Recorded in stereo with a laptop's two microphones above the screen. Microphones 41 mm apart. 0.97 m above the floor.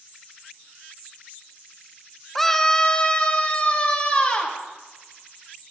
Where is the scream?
5° left (ahead or behind), 0.7 m; by 4.6 s 30° left (ahead or behind), 2 m.